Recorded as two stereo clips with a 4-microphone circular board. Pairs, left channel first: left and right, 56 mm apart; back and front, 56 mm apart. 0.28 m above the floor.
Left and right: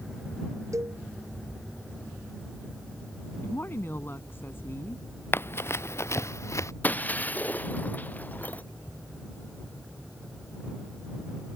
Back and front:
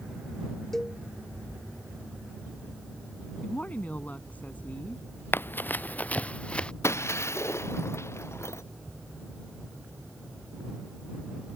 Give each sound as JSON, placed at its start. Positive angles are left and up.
{"t": 0.7, "sound": "a cowbell", "azimuth_deg": -95}
{"t": 3.4, "sound": "a woman speaking", "azimuth_deg": 125}
{"t": 5.3, "sound": "running footsteps", "azimuth_deg": 130}
{"t": 6.8, "sound": "breaking glass", "azimuth_deg": 145}